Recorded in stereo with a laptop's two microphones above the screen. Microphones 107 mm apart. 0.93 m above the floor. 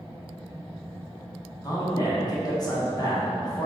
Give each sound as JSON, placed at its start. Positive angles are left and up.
{"t": 1.6, "sound": "a man speaking", "side_deg": 35, "distance_m": 0.9}